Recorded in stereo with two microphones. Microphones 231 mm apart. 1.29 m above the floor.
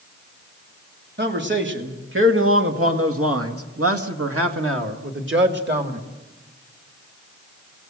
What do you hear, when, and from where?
1.2 s a man speaking: 50° right (ahead or behind), 3 m; by 6.0 s 45° right (ahead or behind), 2.5 m